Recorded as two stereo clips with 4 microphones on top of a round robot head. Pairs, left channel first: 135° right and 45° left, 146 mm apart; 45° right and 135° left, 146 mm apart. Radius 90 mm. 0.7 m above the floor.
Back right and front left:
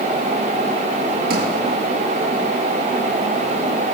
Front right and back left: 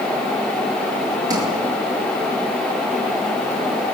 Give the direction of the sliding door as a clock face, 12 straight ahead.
10 o'clock.